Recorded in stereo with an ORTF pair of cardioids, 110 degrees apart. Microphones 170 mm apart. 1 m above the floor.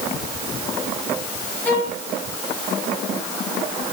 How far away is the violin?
About 3.5 m.